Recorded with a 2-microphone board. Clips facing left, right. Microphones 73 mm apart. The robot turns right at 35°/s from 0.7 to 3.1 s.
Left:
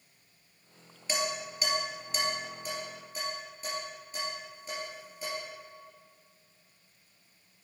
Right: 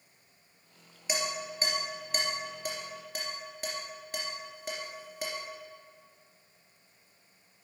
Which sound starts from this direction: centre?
Dishes clattering, at 1.1 s.